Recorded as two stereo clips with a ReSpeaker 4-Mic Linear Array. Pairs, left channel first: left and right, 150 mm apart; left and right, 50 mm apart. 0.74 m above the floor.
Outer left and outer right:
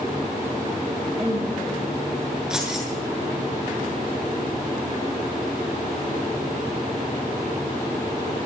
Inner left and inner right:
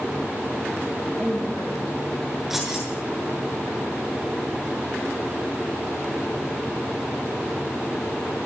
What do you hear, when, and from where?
1.2 s a woman speaking: 10° right (ahead or behind), 9.5 m
2.5 s keys jangling: 5° right (ahead or behind), 8 m